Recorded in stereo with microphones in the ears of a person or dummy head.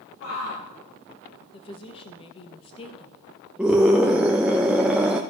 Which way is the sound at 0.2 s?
75° left (ahead or behind).